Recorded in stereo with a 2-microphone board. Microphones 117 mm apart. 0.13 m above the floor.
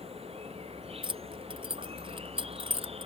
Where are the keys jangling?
45° right (ahead or behind).